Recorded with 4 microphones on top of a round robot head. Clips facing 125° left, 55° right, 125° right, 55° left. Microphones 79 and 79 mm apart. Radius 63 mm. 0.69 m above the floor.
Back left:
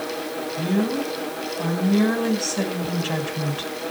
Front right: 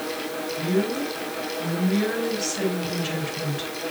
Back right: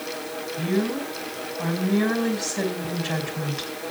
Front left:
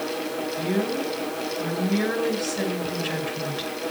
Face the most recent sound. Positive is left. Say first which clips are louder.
# back left 1 dB, back right 2 dB
turn(degrees=165)